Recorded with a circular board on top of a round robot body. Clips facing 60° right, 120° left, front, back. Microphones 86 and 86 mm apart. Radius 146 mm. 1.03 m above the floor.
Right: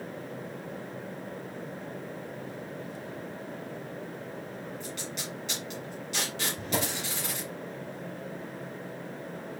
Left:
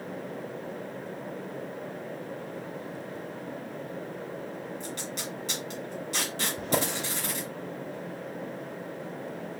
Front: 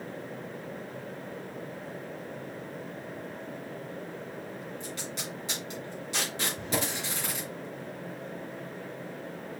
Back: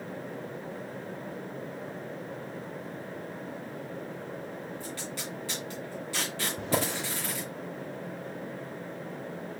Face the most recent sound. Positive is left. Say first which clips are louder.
# left 4 dB, back 5 dB
turn(degrees=145)